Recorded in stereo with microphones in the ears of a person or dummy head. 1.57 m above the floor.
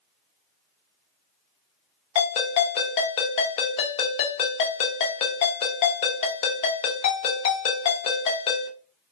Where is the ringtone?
40° left (ahead or behind), 0.8 m.